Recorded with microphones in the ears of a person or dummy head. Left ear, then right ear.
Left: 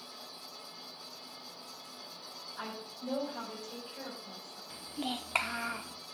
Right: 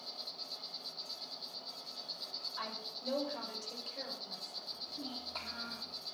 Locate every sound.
0.0 s an insect: 75° right (ahead or behind), 8 m
2.6 s a woman speaking: 45° right (ahead or behind), 8 m
4.7 s a child speaking: 45° left (ahead or behind), 0.8 m